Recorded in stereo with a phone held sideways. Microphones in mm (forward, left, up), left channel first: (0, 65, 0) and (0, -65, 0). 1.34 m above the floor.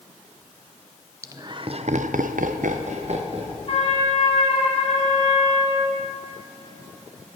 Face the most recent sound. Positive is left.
turn(degrees=45)  # may be behind; listen again after turning